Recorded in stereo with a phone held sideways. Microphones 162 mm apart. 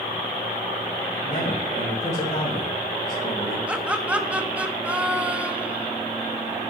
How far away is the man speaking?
About 4 m.